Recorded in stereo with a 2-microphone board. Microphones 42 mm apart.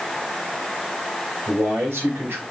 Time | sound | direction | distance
1.5 | a man speaking | 65° right (ahead or behind) | 3.5 m